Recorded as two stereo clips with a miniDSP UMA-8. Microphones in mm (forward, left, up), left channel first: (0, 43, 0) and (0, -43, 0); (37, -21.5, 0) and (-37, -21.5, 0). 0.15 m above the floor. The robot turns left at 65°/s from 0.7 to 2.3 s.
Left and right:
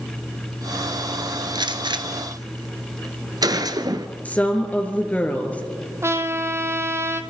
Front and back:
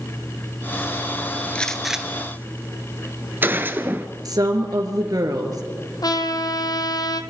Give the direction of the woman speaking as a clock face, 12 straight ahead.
7 o'clock.